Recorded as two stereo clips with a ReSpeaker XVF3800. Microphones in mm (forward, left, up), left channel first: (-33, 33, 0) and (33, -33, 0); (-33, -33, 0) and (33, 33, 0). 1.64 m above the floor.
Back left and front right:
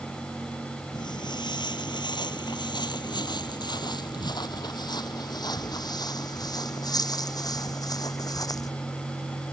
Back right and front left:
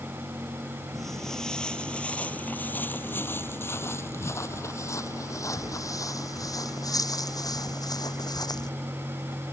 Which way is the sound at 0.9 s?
135° left.